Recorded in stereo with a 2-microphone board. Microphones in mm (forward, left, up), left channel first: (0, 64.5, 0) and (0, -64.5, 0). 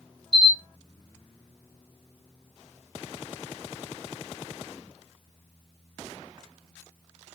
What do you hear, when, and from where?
0.3 s a camera shutter: 5° left (ahead or behind), 1.2 m